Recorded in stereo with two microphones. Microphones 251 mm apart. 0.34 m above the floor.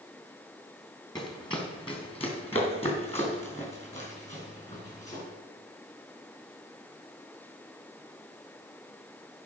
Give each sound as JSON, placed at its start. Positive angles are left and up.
{"t": 1.1, "sound": "running footsteps", "side_deg": 15, "distance_m": 2.5}